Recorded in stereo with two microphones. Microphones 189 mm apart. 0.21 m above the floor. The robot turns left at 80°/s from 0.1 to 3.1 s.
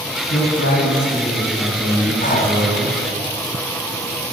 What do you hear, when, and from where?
0.3 s a man speaking: 95° left, 4.5 m; by 3.0 s 115° right, 4.5 m
2.2 s breathing: 45° left (ahead or behind), 2.5 m